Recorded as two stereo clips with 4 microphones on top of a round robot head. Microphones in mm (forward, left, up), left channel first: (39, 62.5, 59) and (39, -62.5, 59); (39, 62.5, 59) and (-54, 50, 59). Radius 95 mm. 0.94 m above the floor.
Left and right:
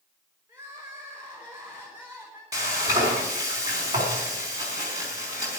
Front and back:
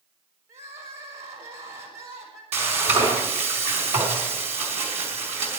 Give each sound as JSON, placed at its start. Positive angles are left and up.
{"t": 0.5, "sound": "crying", "azimuth_deg": -165, "distance_m": 4.5}
{"t": 2.5, "sound": "frying", "azimuth_deg": -160, "distance_m": 4.0}